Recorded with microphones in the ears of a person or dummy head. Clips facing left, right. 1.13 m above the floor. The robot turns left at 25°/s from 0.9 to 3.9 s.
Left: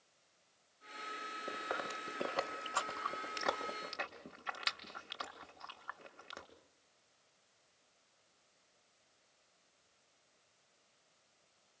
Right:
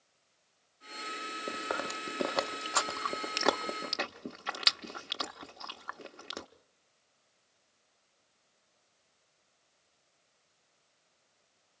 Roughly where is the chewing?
Right.